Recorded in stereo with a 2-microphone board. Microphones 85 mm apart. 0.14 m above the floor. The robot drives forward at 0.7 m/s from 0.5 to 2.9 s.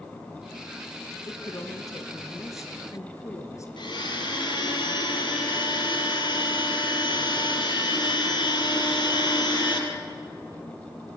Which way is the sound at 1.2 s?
45° left (ahead or behind).